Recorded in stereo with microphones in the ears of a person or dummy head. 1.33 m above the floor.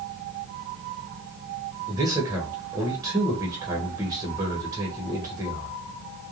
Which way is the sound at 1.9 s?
15° right (ahead or behind).